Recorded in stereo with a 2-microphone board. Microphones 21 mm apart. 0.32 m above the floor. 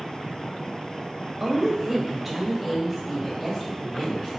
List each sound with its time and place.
1.4 s a woman speaking: 20° right (ahead or behind), 1.1 m; by 4.4 s 30° left (ahead or behind), 1.5 m